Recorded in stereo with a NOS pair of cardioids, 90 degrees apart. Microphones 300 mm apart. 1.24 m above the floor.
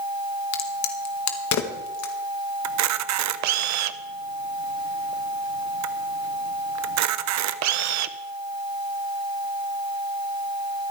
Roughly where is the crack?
Left.